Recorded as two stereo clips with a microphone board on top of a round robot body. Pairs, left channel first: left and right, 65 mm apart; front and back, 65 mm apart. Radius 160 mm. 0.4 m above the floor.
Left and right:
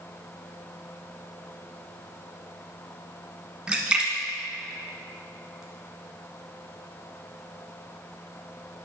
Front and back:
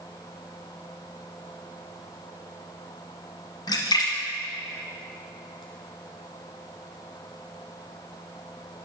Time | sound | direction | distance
3.7 | a splash | 15° right | 1.6 m